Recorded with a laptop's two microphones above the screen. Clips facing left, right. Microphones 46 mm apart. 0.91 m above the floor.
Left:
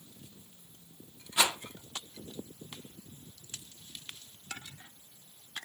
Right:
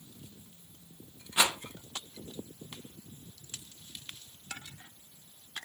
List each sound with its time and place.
1.4 s a rattle: 20° right (ahead or behind), 1.0 m